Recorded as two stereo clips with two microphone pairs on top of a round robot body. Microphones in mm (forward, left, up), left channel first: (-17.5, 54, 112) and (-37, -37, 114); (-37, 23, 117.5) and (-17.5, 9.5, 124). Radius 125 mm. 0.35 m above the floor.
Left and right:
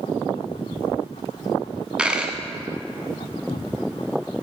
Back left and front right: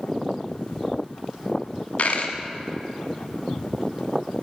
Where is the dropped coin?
175° left, 1.0 m.